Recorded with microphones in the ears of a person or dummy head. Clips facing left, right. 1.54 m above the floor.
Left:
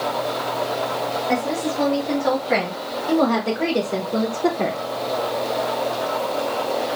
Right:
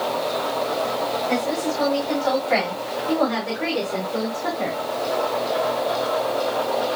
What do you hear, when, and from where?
1.3 s a woman speaking: 50° left (ahead or behind), 3 m; by 4.8 s 75° left (ahead or behind), 0.9 m